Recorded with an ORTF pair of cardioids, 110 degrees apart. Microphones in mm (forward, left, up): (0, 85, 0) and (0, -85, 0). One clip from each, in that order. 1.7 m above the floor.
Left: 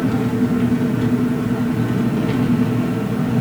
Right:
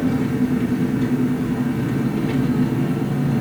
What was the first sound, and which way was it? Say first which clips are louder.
An engine running: left 2 dB; 35° left.